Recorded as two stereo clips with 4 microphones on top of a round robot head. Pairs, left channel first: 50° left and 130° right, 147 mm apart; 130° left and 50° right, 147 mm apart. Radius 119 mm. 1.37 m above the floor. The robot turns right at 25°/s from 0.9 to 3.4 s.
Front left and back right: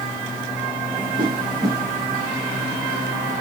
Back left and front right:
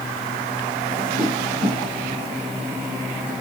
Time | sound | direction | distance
1.2 | a whoosh | 85° right | 0.6 m